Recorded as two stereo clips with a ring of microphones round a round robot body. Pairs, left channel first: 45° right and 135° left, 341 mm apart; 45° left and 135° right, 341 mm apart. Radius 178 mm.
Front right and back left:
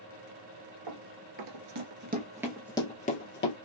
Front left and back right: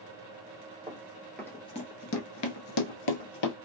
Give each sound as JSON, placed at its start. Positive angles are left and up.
{"t": 0.9, "sound": "running footsteps", "azimuth_deg": 145, "distance_m": 1.0}